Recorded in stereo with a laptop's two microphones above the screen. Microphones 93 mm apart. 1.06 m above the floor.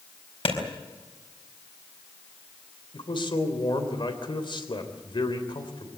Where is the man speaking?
55° left (ahead or behind), 3.5 m.